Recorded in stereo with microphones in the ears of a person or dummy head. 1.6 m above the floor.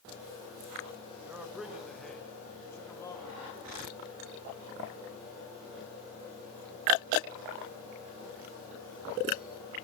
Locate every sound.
1.2 s a man speaking: 15° right (ahead or behind), 2 m; by 3.7 s 20° left (ahead or behind), 4 m